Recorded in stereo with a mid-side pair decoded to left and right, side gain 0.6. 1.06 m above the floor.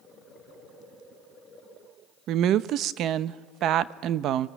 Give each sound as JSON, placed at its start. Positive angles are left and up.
{"t": 2.3, "sound": "a woman speaking", "azimuth_deg": -60, "distance_m": 0.8}